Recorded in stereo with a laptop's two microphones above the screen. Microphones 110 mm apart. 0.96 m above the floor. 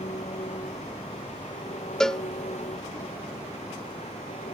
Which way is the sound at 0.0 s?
85° left.